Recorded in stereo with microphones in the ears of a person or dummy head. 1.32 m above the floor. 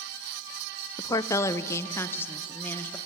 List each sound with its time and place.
1.0 s a woman speaking: 20° left (ahead or behind), 0.5 m; by 3.0 s 15° left (ahead or behind), 1.7 m